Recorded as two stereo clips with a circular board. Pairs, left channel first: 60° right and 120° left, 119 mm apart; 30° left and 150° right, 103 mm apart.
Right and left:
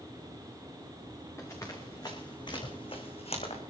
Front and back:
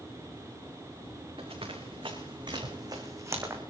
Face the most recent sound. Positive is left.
turn(degrees=-80)